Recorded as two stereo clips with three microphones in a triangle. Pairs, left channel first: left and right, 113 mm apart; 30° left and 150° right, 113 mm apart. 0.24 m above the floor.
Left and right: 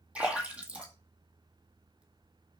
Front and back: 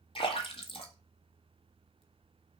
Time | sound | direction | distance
0.1 | a splash | 10° right | 1.7 m